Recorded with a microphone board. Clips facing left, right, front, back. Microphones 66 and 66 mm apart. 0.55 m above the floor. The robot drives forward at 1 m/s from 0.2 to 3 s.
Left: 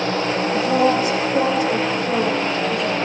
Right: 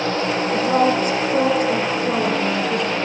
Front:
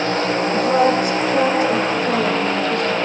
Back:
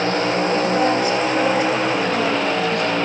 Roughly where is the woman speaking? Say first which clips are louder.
Even, front 5 dB; ahead right.